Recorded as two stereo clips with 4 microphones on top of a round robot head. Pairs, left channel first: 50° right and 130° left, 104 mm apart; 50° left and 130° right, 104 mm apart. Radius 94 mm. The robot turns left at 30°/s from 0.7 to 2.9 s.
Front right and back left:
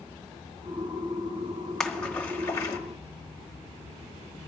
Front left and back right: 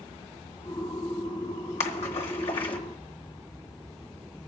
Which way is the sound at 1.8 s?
35° left.